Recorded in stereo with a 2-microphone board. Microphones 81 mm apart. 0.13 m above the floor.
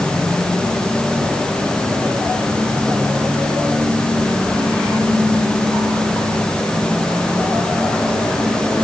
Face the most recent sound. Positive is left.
No sound to turn to.